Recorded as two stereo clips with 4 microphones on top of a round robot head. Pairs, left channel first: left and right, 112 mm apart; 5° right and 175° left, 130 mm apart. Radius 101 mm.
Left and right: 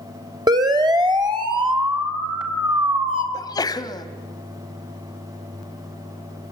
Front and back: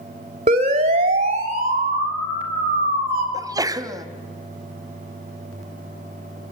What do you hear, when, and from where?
0.5 s a siren: 140° right, 2.5 m; by 3.2 s 135° right, 4 m
3.3 s a sneeze: 125° left, 1.6 m